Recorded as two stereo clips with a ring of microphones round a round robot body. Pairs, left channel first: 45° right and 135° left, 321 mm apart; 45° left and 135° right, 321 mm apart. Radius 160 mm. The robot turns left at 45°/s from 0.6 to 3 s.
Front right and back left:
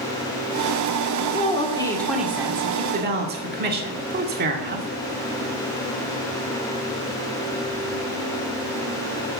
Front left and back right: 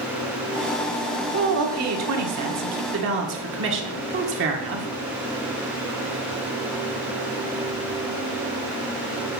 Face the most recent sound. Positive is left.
turn(degrees=-175)